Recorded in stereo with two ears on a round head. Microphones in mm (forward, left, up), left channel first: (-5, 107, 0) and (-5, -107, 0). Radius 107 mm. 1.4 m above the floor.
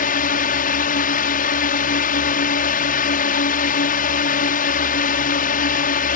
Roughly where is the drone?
Left.